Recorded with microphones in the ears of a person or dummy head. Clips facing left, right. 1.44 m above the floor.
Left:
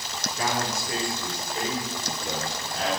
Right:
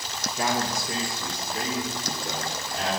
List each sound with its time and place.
0.4 s a man speaking: 5° right (ahead or behind), 0.7 m; by 2.9 s 35° right (ahead or behind), 3.5 m